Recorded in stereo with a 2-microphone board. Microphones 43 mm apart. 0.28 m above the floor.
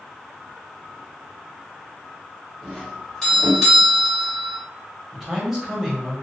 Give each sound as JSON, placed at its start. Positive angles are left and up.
{"t": 2.6, "sound": "a doorbell", "side_deg": 5, "distance_m": 1.5}
{"t": 5.1, "sound": "a man speaking", "side_deg": -10, "distance_m": 0.9}